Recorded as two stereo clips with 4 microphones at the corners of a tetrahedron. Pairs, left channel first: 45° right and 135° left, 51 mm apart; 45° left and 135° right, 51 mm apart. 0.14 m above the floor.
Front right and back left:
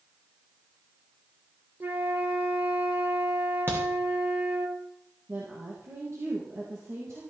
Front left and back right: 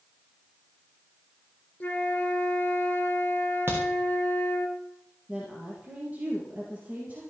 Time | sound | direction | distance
1.8 | a flute | 100° left | 1.8 m
3.7 | a crack | straight behind | 6.5 m
5.3 | a woman speaking | 165° left | 4 m